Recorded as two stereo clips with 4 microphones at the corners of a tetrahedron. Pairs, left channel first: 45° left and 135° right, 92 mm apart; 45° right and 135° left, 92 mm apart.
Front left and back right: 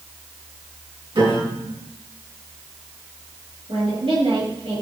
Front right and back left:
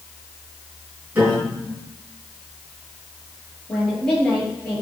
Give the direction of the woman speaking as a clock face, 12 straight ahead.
4 o'clock.